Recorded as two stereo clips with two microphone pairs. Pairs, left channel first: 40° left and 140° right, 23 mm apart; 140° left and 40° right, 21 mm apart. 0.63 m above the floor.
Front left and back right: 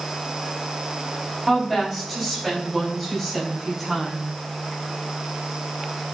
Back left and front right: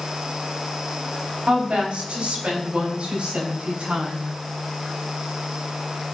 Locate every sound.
1.5 s a woman speaking: 50° right, 4 m; by 4.3 s 45° right, 6 m